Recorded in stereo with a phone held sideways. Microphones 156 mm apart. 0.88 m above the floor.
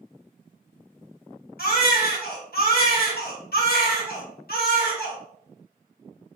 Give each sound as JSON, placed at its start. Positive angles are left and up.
{"t": 1.6, "sound": "a baby crying", "side_deg": 85, "distance_m": 1.0}